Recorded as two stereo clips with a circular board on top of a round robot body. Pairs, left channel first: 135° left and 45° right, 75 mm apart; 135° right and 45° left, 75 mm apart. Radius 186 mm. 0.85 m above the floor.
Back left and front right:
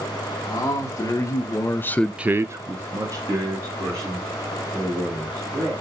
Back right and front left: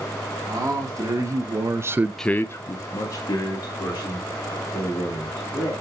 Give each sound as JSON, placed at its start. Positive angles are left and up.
{"t": 0.4, "sound": "a man speaking", "azimuth_deg": 90, "distance_m": 1.6}